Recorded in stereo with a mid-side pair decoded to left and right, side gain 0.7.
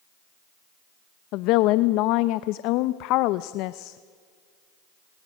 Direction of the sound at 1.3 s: 65° left.